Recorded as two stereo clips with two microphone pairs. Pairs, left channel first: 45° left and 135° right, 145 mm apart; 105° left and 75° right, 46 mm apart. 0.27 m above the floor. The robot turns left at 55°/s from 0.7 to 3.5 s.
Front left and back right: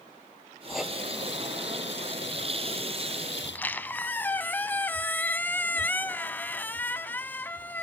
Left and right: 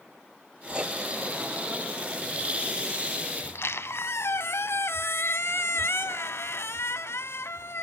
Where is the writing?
45° right, 0.5 m; by 0.9 s 60° right, 0.5 m.